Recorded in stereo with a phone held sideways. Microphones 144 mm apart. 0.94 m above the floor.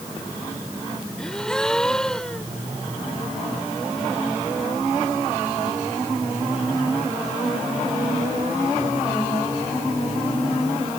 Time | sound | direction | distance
1.2 | a gasp | 5° left (ahead or behind) | ?